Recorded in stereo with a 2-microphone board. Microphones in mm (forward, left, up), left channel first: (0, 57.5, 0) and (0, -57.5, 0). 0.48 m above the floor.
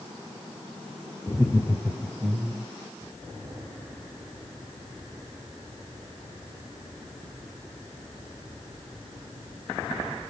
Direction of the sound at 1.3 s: 30° left (ahead or behind).